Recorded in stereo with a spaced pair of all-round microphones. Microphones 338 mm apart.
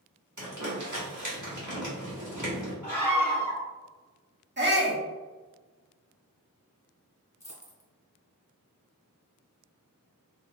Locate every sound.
0.4 s crumpling: 60° right (ahead or behind), 1.6 m
2.8 s a scream: 55° right (ahead or behind), 1.8 m
4.6 s a shout: 30° right (ahead or behind), 1.4 m
7.4 s a dropped coin: 50° left (ahead or behind), 1.7 m